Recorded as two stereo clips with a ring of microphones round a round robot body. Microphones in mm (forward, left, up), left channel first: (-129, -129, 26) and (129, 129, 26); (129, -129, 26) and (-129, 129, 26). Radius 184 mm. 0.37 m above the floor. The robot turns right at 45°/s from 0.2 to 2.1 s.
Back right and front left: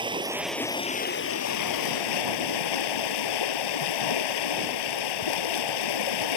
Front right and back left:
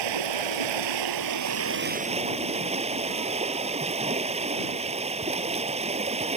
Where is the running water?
120° left; by 6.4 s 150° right.